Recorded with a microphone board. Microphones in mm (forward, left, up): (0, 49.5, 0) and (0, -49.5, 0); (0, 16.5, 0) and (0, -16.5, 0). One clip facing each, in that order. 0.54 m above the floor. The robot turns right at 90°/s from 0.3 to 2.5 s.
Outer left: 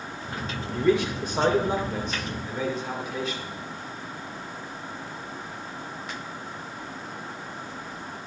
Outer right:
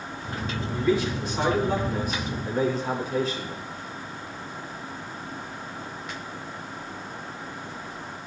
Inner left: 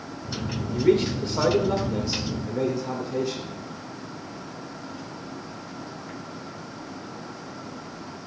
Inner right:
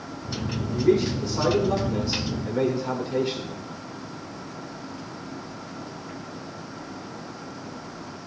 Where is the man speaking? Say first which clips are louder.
Outer left 2 dB, even; 70° left, 1.9 m; by 3.6 s 130° right, 1.9 m.